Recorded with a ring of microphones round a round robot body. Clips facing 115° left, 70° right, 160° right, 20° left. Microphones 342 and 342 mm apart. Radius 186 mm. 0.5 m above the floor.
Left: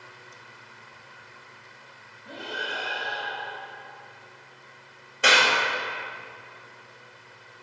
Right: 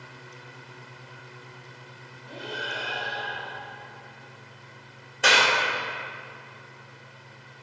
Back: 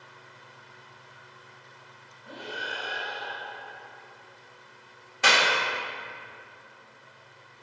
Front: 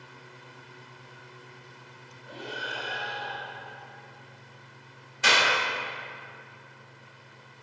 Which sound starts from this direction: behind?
A clap, at 5.2 s.